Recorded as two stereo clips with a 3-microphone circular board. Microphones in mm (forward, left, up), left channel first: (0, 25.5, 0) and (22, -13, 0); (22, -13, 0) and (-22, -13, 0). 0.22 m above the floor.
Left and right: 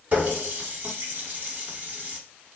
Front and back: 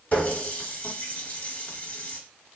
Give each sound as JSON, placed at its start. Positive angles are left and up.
{"t": 0.1, "sound": "a running tap", "azimuth_deg": -35, "distance_m": 1.1}